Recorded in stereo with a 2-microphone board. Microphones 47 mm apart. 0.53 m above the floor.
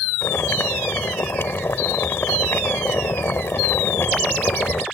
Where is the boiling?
60° left (ahead or behind).